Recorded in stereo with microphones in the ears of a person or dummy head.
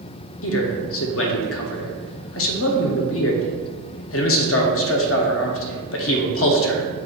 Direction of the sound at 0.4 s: 60° left (ahead or behind).